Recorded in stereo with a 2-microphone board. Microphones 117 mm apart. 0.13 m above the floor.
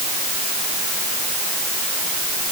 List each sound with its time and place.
Only background noise.